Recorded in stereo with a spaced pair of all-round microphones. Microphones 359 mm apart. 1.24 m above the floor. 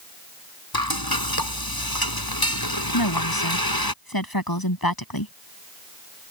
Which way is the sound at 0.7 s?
80° left.